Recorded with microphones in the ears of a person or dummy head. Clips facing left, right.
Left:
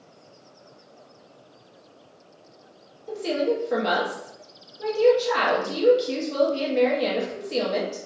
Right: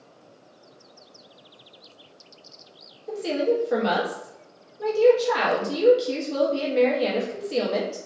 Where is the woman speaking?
5° right (ahead or behind), 0.9 m.